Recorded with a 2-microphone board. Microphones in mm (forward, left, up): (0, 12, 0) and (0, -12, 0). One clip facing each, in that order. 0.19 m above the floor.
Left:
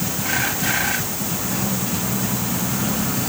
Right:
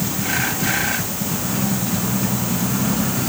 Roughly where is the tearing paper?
I don't hear tearing paper.